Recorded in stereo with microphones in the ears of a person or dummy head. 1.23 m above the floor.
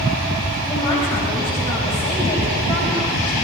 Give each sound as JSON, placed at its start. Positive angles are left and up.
{"t": 0.7, "sound": "a man speaking", "side_deg": 20, "distance_m": 8.5}